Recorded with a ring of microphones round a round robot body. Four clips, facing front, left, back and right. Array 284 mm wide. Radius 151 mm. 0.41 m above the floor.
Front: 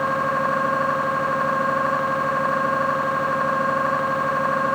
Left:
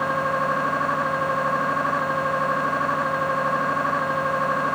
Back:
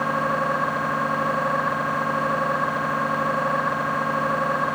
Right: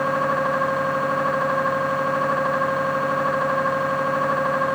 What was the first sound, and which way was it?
Only background noise.